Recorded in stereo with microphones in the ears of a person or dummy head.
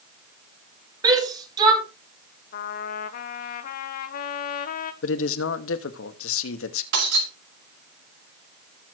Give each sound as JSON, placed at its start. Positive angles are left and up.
{"t": 1.0, "sound": "a shout", "side_deg": -20, "distance_m": 5.0}
{"t": 2.5, "sound": "a trumpet", "side_deg": 55, "distance_m": 1.2}
{"t": 5.0, "sound": "a man speaking", "side_deg": 85, "distance_m": 1.5}
{"t": 6.9, "sound": "breaking glass", "side_deg": -65, "distance_m": 5.0}